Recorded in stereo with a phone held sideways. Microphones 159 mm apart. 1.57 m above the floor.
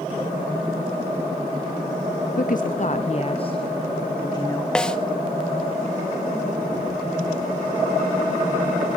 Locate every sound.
2.3 s a woman speaking: 70° left (ahead or behind), 0.6 m; by 4.7 s 25° left (ahead or behind), 1.8 m
4.8 s a snare drum: 5° left (ahead or behind), 0.9 m